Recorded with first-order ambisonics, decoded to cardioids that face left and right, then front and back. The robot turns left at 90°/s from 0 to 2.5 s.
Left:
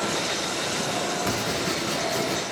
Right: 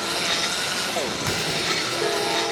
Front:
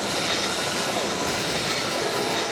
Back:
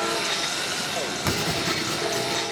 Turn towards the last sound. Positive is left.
turn(degrees=90)